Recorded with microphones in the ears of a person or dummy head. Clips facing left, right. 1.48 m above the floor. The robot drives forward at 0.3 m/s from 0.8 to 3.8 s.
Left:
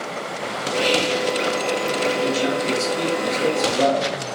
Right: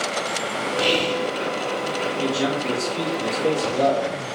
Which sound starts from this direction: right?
A man speaking, at 2.2 s.